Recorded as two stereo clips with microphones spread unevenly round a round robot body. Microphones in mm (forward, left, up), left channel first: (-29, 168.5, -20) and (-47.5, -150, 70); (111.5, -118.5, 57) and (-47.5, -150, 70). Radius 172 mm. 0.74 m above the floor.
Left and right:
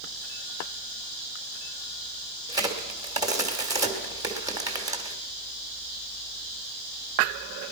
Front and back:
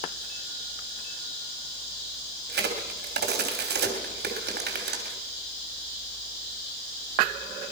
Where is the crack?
Straight behind, 3 m.